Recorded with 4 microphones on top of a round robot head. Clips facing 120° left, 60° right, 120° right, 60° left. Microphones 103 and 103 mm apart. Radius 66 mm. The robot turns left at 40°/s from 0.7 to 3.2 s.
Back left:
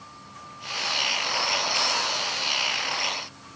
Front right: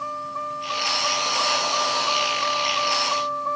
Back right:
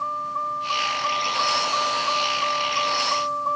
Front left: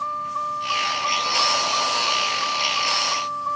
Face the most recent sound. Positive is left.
turn(degrees=-60)